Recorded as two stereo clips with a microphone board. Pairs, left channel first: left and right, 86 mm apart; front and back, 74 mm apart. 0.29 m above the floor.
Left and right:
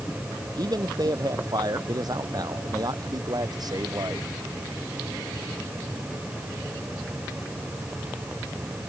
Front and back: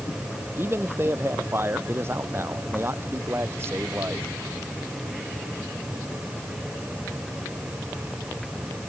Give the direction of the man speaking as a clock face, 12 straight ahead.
4 o'clock.